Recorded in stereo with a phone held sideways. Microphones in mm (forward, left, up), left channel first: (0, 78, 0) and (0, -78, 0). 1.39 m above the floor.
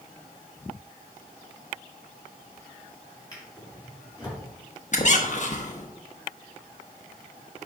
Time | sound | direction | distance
3.3 | a drawer | 25° left (ahead or behind) | 4 m
4.9 | a squeak | 50° left (ahead or behind) | 1.0 m